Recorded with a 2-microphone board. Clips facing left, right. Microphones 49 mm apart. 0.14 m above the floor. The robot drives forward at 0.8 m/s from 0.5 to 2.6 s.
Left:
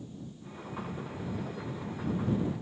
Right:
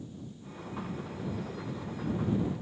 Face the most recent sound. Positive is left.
No sound to turn to.